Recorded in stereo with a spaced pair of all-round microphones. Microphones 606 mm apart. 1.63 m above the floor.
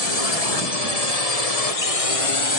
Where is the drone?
75° left (ahead or behind); by 2.6 s 45° left (ahead or behind).